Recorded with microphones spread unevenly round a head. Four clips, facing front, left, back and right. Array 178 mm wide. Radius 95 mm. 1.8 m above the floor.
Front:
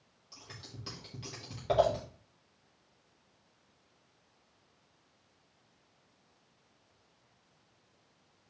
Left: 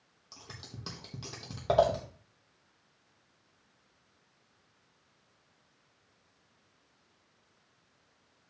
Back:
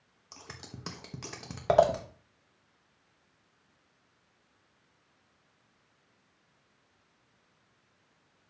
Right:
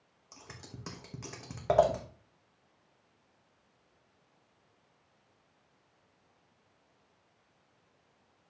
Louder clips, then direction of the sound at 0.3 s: Even, back 4 dB; 155° right.